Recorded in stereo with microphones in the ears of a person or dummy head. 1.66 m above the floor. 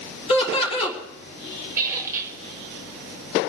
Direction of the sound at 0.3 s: 30° left (ahead or behind).